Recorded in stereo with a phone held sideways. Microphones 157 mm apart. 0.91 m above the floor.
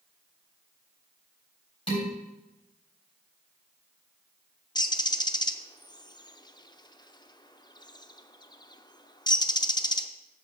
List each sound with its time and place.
1.9 s dishes clattering: 40° left (ahead or behind), 3.5 m
4.8 s a bird: 25° left (ahead or behind), 0.5 m